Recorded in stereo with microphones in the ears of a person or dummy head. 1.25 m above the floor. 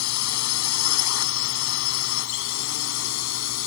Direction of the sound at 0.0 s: 80° left.